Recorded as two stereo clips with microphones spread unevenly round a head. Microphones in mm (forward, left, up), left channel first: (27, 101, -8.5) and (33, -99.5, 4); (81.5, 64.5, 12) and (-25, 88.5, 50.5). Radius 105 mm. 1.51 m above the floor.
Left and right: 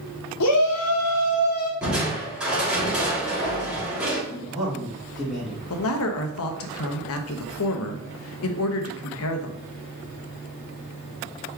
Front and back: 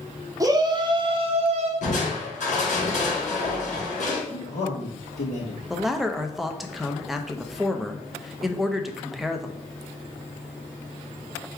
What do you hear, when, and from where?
0.4 s a shout: 110° left, 1.1 m; by 1.7 s 145° left, 0.9 m
1.8 s crushing: 5° right, 2 m
4.3 s a man speaking: straight ahead, 3 m
5.7 s a man speaking: 80° left, 0.8 m